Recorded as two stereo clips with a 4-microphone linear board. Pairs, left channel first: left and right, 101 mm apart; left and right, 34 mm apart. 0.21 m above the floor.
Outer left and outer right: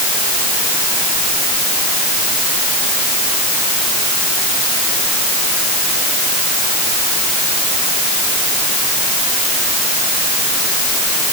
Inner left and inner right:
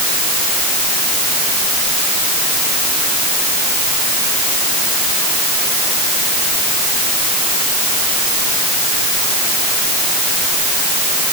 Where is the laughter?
No laughter in this recording.